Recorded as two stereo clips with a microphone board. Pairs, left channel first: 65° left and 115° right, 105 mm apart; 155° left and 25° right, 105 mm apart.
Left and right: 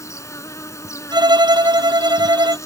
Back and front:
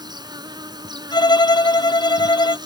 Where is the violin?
155° right.